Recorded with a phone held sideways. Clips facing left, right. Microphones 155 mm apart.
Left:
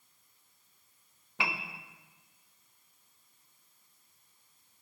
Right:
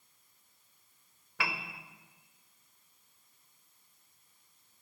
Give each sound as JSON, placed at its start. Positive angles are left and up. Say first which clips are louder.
{"t": 1.4, "sound": "a piano", "louder": "left 1 dB", "side_deg": 20, "distance_m": 0.6}